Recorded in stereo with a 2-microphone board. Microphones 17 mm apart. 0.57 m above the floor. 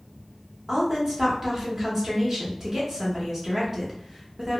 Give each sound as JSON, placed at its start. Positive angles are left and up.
{"t": 0.7, "sound": "a woman speaking", "side_deg": -30, "distance_m": 1.1}